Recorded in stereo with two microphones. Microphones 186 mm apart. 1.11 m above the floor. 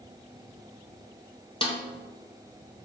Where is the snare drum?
30° left (ahead or behind), 0.6 m.